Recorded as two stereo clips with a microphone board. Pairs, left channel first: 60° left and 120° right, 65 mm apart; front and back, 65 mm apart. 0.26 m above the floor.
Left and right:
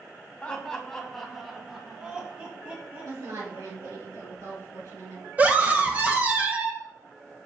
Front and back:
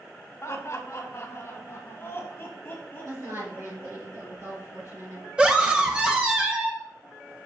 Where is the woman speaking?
145° right, 3.5 m.